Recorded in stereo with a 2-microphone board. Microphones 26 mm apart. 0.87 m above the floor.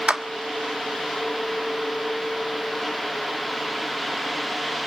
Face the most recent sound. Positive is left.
turn(degrees=-65)  # may be behind; listen again after turning